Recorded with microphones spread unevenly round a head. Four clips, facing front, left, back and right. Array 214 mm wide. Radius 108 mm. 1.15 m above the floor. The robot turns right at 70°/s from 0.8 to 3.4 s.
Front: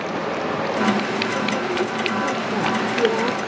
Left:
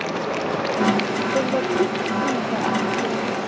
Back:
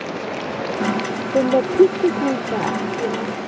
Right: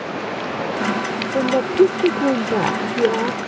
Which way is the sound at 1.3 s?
Straight behind.